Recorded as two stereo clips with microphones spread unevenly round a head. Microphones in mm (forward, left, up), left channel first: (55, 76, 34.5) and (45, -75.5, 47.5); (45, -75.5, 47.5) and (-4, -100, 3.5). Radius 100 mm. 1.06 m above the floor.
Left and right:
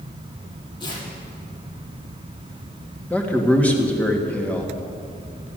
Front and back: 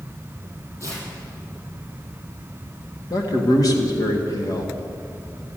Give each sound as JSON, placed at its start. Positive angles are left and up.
{"t": 0.8, "sound": "tearing paper", "azimuth_deg": 25, "distance_m": 7.5}
{"t": 3.1, "sound": "a man speaking", "azimuth_deg": 5, "distance_m": 1.9}